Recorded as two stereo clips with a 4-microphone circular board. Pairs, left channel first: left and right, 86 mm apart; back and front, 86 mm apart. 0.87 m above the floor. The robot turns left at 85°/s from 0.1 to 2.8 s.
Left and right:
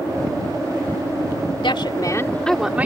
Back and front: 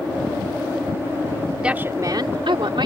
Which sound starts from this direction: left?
A woman speaking, at 1.6 s.